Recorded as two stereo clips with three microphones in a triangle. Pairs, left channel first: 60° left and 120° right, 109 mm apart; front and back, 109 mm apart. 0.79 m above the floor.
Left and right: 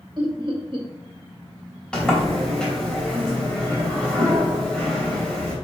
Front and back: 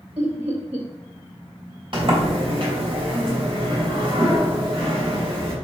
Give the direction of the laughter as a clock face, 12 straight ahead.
5 o'clock.